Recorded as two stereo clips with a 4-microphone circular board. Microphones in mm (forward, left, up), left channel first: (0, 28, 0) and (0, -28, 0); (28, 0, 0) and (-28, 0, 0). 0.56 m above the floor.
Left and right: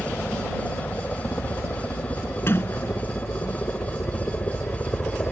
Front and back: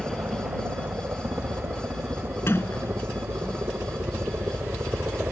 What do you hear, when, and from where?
0.0 s a helicopter: 150° left; by 5.3 s 135° left
2.5 s a sliding door: 45° left